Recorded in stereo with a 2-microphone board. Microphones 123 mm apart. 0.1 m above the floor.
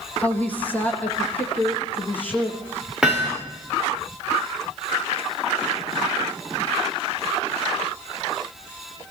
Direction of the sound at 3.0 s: 5° right (ahead or behind).